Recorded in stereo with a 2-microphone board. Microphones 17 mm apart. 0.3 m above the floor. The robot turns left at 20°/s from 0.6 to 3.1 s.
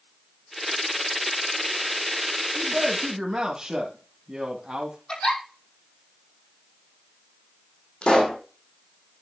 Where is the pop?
85° left, 2.5 m.